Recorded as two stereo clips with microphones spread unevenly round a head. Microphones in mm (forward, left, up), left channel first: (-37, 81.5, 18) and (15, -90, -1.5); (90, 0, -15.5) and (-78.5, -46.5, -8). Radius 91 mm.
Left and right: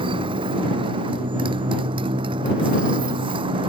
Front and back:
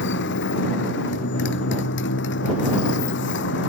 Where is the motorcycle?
5° right.